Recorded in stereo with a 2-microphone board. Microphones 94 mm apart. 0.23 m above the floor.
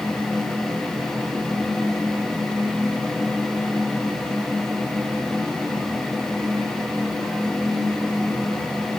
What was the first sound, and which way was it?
Only background noise.